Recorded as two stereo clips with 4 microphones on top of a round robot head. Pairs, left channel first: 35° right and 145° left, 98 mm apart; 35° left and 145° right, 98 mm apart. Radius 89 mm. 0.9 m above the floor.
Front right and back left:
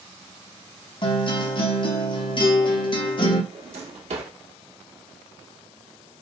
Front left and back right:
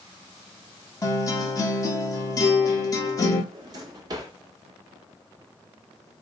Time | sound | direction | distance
1.0 | a guitar | 15° right | 1.4 m
3.5 | a drawer | 160° left | 1.4 m